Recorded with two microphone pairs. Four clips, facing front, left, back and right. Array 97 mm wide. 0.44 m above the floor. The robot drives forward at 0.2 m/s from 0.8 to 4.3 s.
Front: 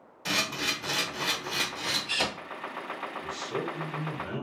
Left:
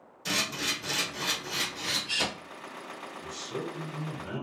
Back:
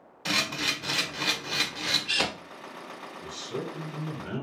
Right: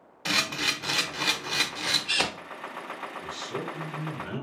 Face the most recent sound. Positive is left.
turn(degrees=-90)